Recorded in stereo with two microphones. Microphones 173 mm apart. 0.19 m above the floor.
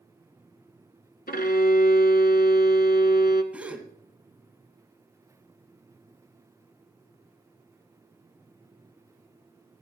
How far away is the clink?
I don't hear a clink.